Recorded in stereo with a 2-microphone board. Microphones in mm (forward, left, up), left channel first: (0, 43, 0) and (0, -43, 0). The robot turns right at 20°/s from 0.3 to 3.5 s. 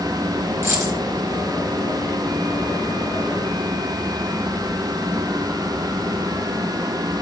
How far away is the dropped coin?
About 4.5 m.